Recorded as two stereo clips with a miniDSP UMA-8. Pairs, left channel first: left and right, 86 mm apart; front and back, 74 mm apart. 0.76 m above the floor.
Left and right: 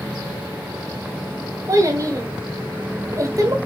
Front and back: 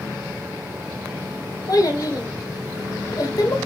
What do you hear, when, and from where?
1.7 s a child speaking: 40° right, 1.5 m